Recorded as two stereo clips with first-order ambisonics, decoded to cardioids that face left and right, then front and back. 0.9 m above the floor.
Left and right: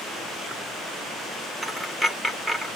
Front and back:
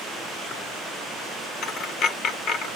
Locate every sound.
1.6 s a dropped coin: 10° right, 0.6 m